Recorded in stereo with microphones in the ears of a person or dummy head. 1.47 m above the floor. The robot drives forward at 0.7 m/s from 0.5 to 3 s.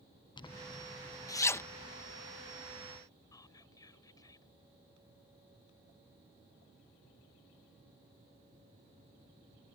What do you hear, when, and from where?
0.4 s a zipper: 20° left (ahead or behind); by 3.0 s 10° left (ahead or behind)
3.3 s whispering: 20° left (ahead or behind)